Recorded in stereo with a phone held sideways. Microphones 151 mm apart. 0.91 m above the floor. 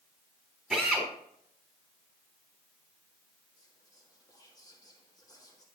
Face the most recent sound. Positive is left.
turn(degrees=25)  # may be behind; listen again after turning